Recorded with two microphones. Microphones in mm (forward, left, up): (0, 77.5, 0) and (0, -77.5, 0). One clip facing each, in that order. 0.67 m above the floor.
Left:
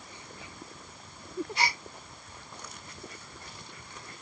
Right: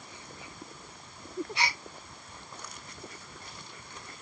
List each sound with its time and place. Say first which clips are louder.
1.6 s a gasp: left 3 dB; 40° left (ahead or behind), 3 m